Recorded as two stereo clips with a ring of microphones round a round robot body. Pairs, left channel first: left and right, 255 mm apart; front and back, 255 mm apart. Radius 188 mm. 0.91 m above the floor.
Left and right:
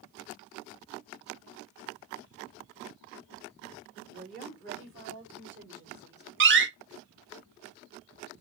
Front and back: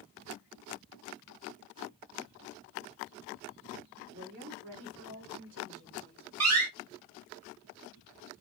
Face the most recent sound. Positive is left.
turn(degrees=-135)